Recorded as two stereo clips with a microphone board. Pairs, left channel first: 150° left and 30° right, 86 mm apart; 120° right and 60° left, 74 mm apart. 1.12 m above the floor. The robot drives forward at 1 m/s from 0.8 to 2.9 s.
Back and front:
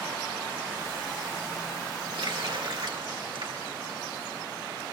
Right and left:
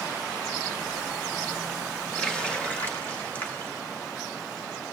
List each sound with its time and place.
2.1 s a running tap: 40° right, 3 m; by 3.7 s 50° right, 2.5 m